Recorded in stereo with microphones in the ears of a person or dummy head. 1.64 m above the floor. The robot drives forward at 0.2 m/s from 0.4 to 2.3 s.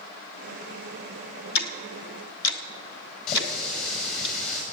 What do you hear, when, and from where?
1.6 s ticking: 60° left (ahead or behind), 1.4 m; by 4.3 s 65° left (ahead or behind), 1.4 m
3.3 s a running tap: 50° left (ahead or behind), 5.5 m